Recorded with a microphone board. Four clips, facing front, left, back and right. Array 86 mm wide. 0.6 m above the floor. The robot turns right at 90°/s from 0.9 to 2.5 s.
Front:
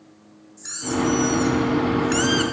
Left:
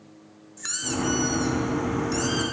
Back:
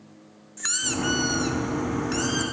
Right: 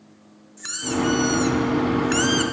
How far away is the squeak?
About 0.6 m.